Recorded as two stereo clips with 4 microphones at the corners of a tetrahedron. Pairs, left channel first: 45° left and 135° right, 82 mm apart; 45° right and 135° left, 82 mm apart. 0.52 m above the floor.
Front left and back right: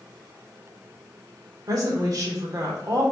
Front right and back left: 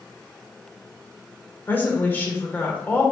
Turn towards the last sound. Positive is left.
turn(degrees=-105)